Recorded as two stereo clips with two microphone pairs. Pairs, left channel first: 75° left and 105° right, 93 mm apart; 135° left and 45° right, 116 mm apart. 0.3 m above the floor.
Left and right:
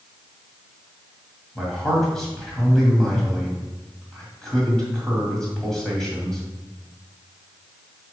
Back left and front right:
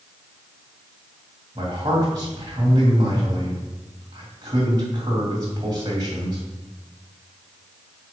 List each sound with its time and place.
1.6 s a man speaking: 10° right, 2.5 m